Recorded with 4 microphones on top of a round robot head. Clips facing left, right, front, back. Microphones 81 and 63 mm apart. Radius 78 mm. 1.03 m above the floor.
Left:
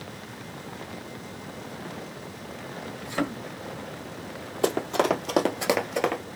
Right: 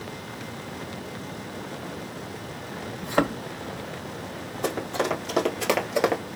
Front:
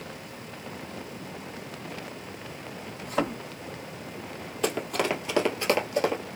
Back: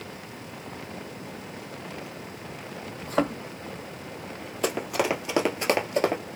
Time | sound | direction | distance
3.0 | a thud | 115° right | 0.9 m
4.6 | running footsteps | 95° left | 1.8 m